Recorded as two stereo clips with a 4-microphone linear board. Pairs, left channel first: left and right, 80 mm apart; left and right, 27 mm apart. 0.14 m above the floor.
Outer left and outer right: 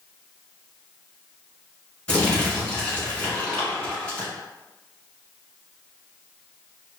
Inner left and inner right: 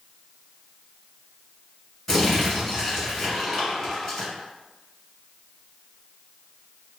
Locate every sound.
2.1 s crumpling: 15° left (ahead or behind), 1.2 m